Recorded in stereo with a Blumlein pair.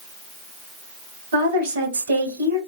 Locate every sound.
1.3 s a woman speaking: 65° right, 1.7 m